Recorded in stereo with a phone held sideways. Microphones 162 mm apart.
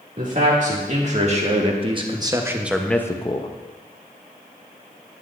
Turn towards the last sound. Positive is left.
turn(degrees=40)  # may be behind; listen again after turning